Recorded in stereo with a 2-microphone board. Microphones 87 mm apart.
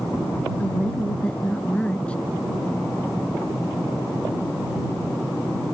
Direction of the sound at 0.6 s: 15° left (ahead or behind).